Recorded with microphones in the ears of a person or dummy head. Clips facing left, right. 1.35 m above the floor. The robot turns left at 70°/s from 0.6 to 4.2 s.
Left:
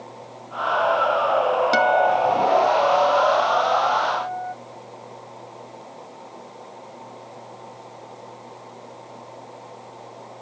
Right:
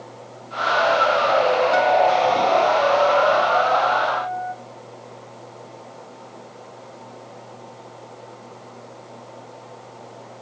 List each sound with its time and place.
1.7 s a guitar: 40° left, 0.8 m; by 4.5 s 135° right, 0.8 m